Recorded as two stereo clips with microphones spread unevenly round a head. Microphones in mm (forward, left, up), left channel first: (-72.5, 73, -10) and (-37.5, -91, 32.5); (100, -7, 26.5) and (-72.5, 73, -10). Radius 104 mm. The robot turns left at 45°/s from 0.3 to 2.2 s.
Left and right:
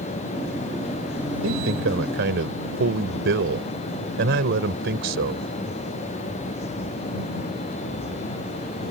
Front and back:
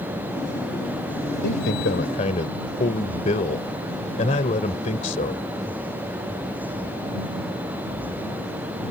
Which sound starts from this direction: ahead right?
A man speaking, at 1.4 s.